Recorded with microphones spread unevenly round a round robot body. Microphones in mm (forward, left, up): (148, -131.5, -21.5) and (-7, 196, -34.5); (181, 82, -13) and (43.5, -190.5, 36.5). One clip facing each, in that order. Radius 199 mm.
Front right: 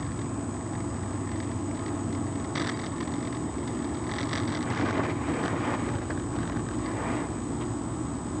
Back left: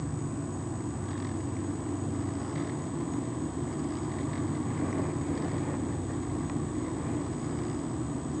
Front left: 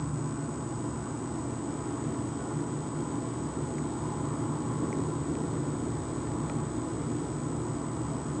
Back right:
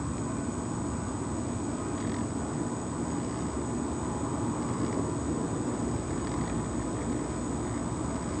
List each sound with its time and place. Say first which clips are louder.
0.0 s an insect: front right 2 dB, back right 2 dB; 75° right, 2 m